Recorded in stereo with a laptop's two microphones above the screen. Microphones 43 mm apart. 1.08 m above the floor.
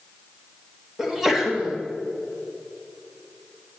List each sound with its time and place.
1.0 s a sneeze: 10° right (ahead or behind), 1.7 m